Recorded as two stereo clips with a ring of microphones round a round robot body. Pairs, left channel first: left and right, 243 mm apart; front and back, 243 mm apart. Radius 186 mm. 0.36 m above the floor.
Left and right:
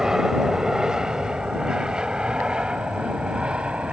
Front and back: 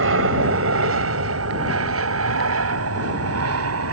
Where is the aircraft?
Straight behind; by 3.9 s 175° right.